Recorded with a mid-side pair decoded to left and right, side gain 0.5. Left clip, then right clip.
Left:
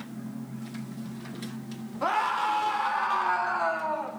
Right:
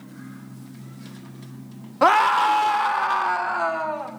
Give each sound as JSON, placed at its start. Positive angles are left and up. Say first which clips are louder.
{"t": 2.0, "sound": "a scream", "louder": "right 10 dB", "azimuth_deg": -70, "distance_m": 0.6}